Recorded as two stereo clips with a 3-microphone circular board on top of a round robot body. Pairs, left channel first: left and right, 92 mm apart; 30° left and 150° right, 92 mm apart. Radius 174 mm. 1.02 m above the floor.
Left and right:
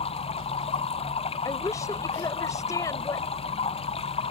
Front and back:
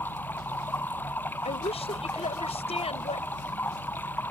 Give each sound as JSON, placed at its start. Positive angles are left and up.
{"t": 0.0, "sound": "running water", "azimuth_deg": 100}
{"t": 1.4, "sound": "a woman speaking", "azimuth_deg": 30}